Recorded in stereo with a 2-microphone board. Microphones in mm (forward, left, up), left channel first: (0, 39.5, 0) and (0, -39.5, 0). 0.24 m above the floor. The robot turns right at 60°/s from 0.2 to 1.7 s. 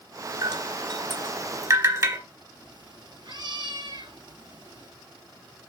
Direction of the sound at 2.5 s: 60° right (ahead or behind).